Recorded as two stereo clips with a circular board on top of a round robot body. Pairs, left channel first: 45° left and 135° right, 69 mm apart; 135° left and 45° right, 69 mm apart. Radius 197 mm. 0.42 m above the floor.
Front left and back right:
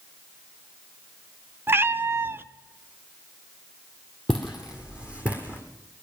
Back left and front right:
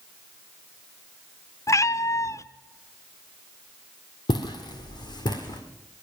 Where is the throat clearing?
I don't hear throat clearing.